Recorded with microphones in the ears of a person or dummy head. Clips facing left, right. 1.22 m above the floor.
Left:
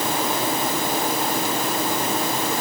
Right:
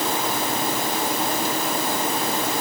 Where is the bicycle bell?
No bicycle bell in this recording.